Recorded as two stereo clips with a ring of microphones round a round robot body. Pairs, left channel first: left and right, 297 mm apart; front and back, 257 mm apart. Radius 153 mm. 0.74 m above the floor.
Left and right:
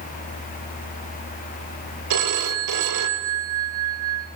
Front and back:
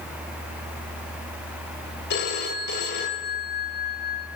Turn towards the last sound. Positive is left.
turn(degrees=-60)